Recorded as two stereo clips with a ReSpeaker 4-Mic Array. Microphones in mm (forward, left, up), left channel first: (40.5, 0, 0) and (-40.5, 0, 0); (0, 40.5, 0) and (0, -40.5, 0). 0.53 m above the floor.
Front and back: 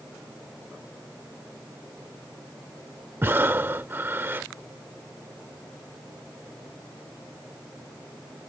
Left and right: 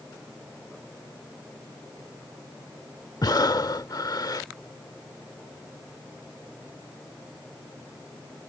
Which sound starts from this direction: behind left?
Breathing, at 3.2 s.